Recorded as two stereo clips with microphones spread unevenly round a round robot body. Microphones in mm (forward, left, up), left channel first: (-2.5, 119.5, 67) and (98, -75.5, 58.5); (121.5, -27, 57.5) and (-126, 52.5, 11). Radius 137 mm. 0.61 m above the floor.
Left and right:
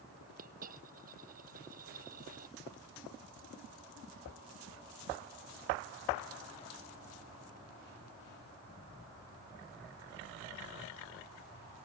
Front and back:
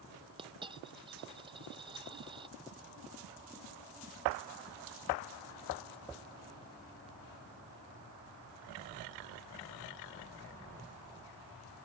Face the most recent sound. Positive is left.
turn(degrees=-125)